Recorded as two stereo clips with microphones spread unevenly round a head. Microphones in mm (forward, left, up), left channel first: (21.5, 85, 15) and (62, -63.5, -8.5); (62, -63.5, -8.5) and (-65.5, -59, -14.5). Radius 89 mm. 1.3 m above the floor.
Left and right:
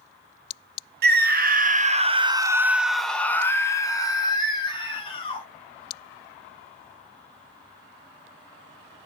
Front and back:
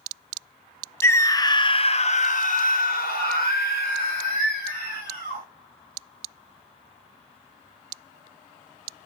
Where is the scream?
75° right, 0.8 m; by 5.4 s 45° left, 1.7 m.